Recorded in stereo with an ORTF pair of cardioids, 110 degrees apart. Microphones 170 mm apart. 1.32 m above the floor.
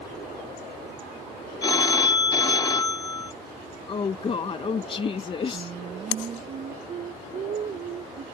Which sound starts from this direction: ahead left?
A woman speaking, at 3.9 s.